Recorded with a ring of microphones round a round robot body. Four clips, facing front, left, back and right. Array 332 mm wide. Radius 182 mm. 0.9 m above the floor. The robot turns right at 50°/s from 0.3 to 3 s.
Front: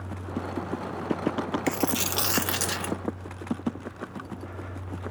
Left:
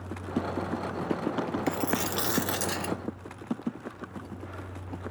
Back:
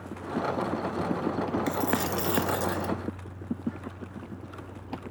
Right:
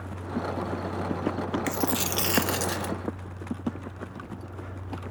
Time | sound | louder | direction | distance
1.7 | a dropped coin | right 1 dB, even | 50° right | 0.7 m